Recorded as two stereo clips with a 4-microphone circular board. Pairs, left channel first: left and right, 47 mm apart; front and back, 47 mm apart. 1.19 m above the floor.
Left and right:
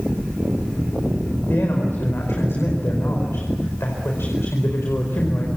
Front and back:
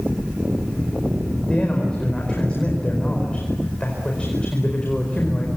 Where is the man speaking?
65° left, 4.5 m.